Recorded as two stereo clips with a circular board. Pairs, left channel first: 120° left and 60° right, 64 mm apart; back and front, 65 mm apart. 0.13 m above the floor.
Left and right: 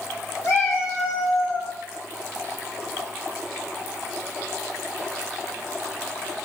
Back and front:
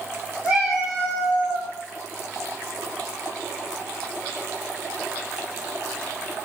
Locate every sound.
0.4 s a cat meowing: 75° left, 1.9 m; by 1.7 s 80° left, 1.3 m